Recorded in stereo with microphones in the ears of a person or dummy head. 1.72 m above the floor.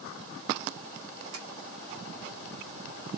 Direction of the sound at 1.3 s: 80° right.